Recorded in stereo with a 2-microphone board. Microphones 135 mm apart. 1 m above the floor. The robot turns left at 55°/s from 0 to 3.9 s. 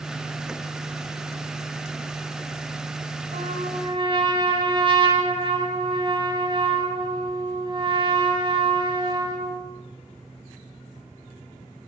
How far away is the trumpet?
About 8 m.